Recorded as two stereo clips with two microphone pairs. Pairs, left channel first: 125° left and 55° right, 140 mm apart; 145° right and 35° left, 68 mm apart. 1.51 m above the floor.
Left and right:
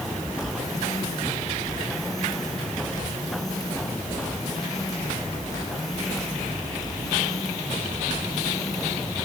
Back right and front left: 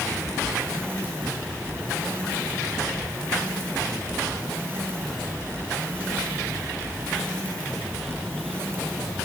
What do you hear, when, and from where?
Only background noise.